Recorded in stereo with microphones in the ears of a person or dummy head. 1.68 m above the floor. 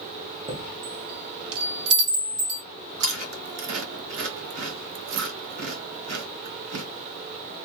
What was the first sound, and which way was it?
A chime, 30° right (ahead or behind).